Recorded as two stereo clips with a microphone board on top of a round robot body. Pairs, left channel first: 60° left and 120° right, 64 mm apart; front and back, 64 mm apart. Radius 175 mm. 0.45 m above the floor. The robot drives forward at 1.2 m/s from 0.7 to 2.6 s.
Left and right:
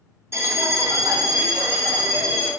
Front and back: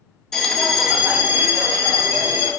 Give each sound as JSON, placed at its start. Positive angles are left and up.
{"t": 0.3, "sound": "a bell", "azimuth_deg": -85, "distance_m": 1.0}